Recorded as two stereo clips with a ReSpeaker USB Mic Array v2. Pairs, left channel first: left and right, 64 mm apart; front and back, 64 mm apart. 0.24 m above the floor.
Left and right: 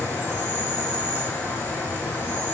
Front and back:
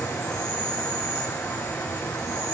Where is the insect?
35° left, 4 m.